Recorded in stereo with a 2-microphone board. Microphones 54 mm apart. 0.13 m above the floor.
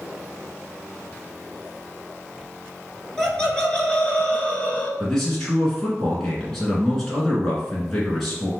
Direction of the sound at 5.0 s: 5° left (ahead or behind).